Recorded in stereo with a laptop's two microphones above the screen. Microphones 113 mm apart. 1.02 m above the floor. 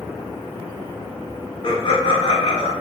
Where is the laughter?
50° left (ahead or behind), 0.6 m.